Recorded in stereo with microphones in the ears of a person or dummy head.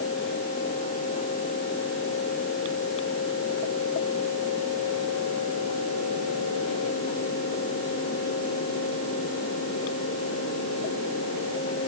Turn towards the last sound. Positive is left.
No sound to turn to.